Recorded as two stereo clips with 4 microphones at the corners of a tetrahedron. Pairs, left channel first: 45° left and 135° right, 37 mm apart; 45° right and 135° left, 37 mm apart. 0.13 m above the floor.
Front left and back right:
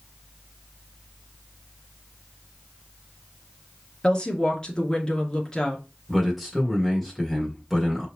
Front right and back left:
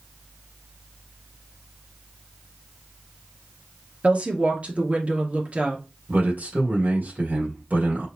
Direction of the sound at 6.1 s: 135° left.